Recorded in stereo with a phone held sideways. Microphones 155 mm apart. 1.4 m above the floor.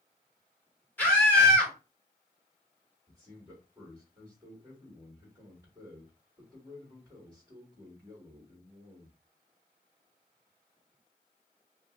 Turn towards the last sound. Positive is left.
turn(degrees=-25)  # may be behind; listen again after turning